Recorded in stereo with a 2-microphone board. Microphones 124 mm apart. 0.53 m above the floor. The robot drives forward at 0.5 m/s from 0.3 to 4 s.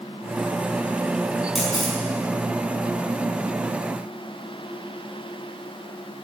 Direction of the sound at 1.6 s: Centre (ahead or behind).